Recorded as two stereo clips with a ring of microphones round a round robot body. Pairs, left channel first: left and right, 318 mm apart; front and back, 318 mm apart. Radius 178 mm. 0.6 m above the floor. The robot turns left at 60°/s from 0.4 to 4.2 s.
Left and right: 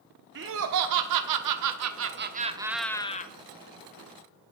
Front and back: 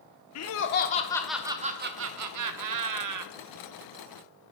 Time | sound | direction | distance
0.3 | laughter | 35° right | 1.1 m